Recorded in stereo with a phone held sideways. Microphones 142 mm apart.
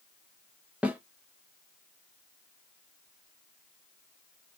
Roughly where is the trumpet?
I don't hear a trumpet.